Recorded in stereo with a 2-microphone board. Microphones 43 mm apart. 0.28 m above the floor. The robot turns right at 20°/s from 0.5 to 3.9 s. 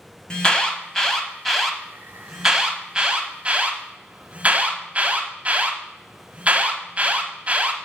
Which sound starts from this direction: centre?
An alarm, at 0.3 s.